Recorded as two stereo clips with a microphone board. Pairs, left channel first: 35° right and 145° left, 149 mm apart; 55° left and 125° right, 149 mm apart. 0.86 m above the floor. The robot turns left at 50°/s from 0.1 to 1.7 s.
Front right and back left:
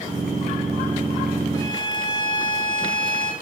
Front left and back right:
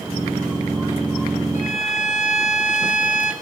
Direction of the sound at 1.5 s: 35° left.